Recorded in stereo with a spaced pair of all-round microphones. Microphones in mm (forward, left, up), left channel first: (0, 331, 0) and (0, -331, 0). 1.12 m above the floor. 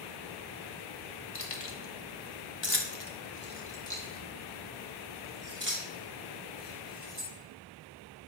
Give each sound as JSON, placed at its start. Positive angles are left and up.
{"t": 1.4, "sound": "keys jangling", "side_deg": 75, "distance_m": 1.3}